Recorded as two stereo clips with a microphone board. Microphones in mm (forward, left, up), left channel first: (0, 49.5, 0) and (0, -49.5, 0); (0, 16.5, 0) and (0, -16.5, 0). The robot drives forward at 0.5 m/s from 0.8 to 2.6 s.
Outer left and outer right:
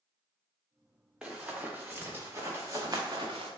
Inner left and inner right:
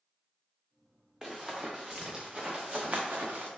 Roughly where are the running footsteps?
Centre.